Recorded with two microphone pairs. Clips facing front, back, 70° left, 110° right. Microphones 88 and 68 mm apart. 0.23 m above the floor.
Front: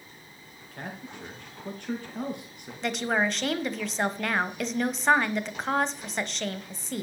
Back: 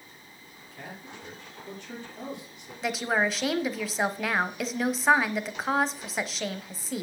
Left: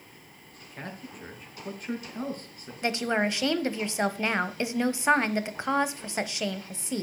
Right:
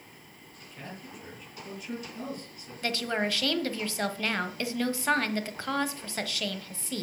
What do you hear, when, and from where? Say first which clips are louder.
0.7 s a man speaking: front 4 dB, left 3 dB; 25° left, 4 m
2.8 s a woman speaking: even, left 3 dB; 95° left, 1.0 m